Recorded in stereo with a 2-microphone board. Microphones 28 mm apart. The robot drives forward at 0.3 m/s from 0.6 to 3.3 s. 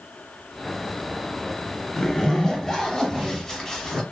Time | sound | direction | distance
2.0 | a zipper | 15° left (ahead or behind) | 0.7 m